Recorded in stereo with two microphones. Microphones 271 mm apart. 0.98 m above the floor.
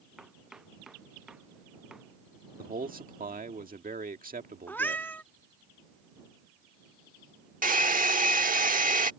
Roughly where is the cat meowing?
Centre.